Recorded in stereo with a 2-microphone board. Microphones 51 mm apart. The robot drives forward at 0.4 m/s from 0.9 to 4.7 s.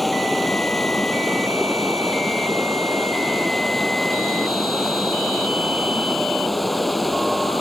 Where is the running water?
Centre (ahead or behind).